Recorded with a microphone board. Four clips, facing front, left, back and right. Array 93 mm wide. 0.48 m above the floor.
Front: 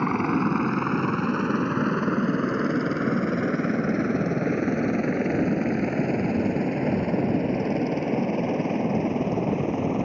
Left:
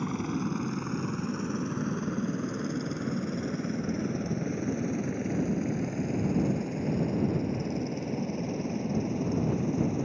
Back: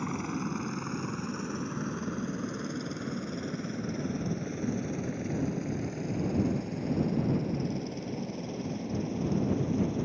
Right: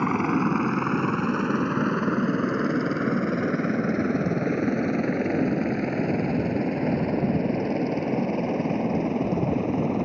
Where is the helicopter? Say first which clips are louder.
Right 9 dB, front 11 dB; 50° right; by 10.1 s 40° right.